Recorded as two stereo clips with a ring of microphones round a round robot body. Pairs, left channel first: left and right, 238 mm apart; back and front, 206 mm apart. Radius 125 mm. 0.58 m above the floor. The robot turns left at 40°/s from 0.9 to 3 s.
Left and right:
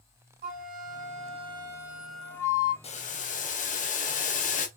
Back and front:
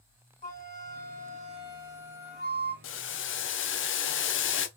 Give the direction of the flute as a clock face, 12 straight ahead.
4 o'clock.